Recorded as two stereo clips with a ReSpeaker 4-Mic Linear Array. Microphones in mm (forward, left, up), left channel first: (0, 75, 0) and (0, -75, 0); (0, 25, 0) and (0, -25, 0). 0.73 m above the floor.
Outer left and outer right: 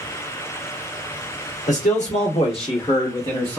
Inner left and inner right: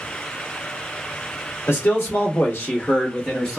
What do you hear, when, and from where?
1.7 s a man speaking: 55° left (ahead or behind), 1.4 m; by 3.6 s 10° left (ahead or behind), 0.9 m